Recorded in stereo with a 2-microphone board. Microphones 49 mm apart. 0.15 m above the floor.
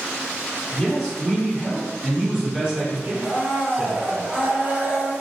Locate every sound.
0.7 s a man speaking: 10° left (ahead or behind), 1.7 m; by 4.2 s 25° right (ahead or behind), 1.7 m
3.2 s a blender: 25° right (ahead or behind), 1.7 m